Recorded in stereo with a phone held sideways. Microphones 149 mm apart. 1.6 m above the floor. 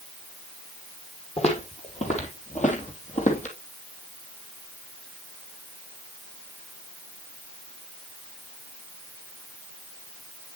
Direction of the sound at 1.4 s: 50° left (ahead or behind).